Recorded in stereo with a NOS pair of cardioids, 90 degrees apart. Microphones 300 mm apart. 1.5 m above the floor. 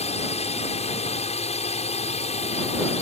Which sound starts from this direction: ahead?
A drone, at 0.0 s.